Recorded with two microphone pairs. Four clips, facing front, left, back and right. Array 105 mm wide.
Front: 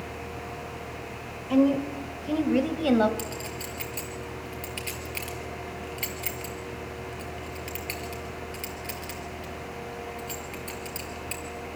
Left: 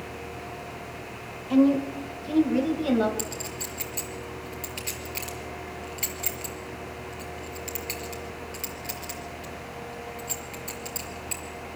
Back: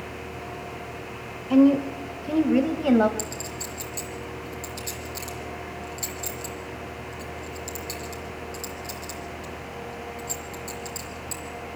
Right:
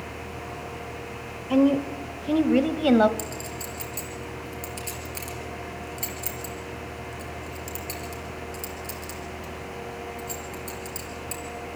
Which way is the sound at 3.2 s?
30° left.